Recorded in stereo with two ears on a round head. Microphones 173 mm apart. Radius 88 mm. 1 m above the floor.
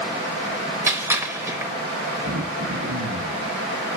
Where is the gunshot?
15° right (ahead or behind), 1.1 m.